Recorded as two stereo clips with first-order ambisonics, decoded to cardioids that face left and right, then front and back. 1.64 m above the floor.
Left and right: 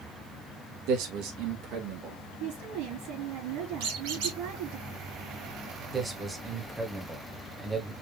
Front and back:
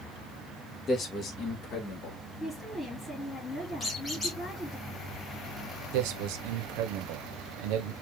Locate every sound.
0.9 s a man speaking: 65° right, 1.8 m; by 2.2 s 45° right, 2.5 m
2.4 s a woman speaking: 80° right, 3.5 m
3.8 s a squeak: 85° right, 2.5 m
5.9 s a man speaking: 170° right, 1.3 m